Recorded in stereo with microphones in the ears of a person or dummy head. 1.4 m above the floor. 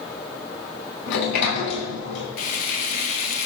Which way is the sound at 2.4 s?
45° left (ahead or behind).